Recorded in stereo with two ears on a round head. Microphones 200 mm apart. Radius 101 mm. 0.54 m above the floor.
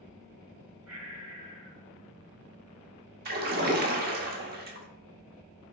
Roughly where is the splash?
Right.